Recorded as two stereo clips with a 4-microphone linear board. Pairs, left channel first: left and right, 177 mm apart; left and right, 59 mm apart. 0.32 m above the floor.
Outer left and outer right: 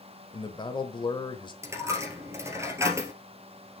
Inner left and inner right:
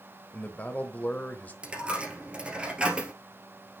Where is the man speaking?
25° left (ahead or behind), 0.9 m.